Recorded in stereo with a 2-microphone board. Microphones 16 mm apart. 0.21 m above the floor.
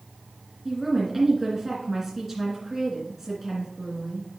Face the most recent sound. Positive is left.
turn(degrees=-10)  # may be behind; listen again after turning